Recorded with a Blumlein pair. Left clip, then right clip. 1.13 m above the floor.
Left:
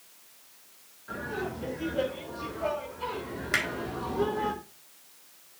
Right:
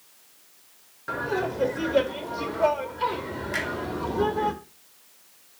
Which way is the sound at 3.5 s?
65° left.